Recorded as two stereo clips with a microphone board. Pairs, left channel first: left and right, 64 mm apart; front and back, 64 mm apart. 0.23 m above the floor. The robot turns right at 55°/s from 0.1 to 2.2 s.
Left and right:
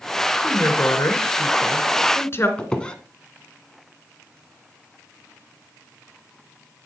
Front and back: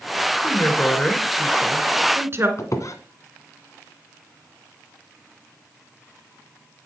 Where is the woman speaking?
40° left, 2 m; by 2.5 s 135° left, 2 m.